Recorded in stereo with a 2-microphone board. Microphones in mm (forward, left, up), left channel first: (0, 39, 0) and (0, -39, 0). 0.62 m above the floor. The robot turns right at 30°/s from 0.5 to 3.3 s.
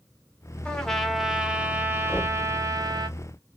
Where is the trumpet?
170° left, 0.5 m; by 3.1 s 120° right, 0.5 m.